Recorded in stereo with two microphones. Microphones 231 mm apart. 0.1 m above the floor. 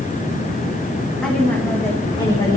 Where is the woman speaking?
5° left (ahead or behind), 5.5 m; by 2.6 s 25° left (ahead or behind), 5 m.